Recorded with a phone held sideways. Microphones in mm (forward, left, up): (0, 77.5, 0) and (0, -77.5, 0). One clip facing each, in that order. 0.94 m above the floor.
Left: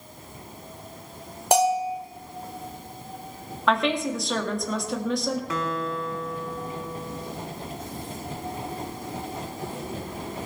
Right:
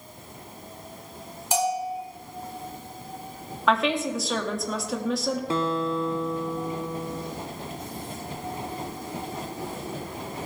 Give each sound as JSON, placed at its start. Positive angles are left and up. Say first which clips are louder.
{"t": 1.5, "sound": "a bell", "louder": "left 5 dB", "side_deg": 70, "distance_m": 1.8}
{"t": 3.7, "sound": "a woman speaking", "louder": "even", "side_deg": 0, "distance_m": 2.0}
{"t": 5.5, "sound": "a guitar", "louder": "right 3 dB", "side_deg": -30, "distance_m": 0.7}